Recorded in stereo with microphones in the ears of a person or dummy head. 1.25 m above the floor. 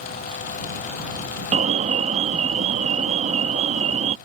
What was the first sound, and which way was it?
An alarm, 30° right (ahead or behind).